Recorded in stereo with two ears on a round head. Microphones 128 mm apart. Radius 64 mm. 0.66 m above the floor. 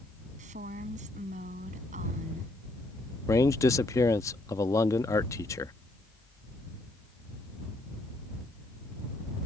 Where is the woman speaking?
55° right (ahead or behind).